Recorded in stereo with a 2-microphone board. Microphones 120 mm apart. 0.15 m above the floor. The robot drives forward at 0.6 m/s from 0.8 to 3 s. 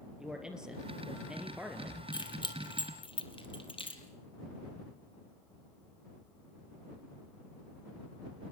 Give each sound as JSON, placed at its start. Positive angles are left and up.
{"t": 0.2, "sound": "a man speaking", "side_deg": -5, "distance_m": 3.5}
{"t": 2.1, "sound": "keys jangling", "side_deg": 40, "distance_m": 3.0}